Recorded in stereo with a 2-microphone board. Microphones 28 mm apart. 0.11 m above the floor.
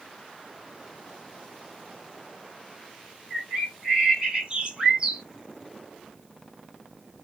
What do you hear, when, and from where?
3.3 s a bird: 30° right (ahead or behind), 1.3 m